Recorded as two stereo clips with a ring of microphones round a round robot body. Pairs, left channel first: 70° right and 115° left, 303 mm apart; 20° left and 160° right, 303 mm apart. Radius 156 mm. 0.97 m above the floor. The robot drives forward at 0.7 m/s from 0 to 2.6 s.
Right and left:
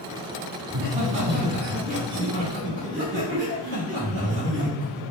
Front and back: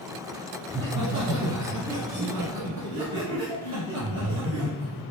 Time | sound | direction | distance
0.7 | laughter | 135° left | 0.8 m